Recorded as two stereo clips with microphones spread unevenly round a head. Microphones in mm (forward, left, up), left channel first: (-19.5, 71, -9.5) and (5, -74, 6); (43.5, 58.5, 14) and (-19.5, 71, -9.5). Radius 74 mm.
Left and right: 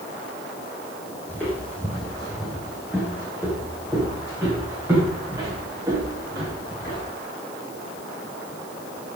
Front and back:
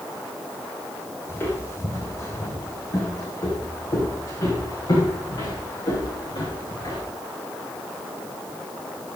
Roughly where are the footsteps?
Ahead.